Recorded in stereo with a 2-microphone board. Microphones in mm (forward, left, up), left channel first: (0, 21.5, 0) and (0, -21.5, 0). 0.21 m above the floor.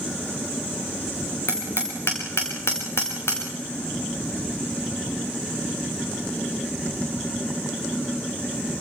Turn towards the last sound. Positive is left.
turn(degrees=80)